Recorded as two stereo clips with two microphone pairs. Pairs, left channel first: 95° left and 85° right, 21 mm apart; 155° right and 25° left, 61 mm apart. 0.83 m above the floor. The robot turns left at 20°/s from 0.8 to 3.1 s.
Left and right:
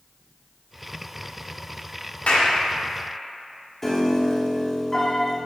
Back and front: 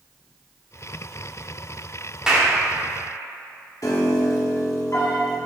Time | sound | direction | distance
2.3 | a clap | 105° left | 1.3 m
3.8 | a piano | 170° left | 1.1 m